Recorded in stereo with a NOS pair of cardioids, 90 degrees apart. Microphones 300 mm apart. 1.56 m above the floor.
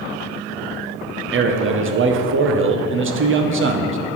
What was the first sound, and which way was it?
A man speaking, 45° right.